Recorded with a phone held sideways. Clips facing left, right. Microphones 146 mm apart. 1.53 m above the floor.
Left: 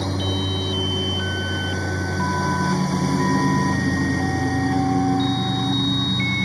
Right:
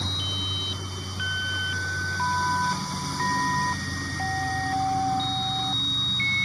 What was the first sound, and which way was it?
A lawn mower, 60° left (ahead or behind).